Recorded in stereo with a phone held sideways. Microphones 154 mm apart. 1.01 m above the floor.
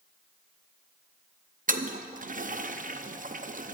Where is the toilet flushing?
60° right (ahead or behind), 0.5 m.